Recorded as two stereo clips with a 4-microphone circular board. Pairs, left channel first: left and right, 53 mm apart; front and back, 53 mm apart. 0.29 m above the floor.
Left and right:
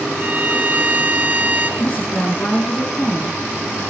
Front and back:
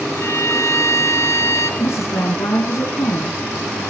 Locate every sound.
0.1 s a violin: 35° right, 4.5 m
1.8 s a woman speaking: 25° left, 3 m